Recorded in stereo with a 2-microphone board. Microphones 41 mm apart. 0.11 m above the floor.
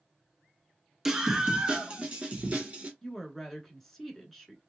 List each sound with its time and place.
1.1 s a scream: 10° right (ahead or behind), 1.1 m; by 2.9 s 30° right (ahead or behind), 1.4 m
3.0 s a woman speaking: 5° left (ahead or behind), 1.4 m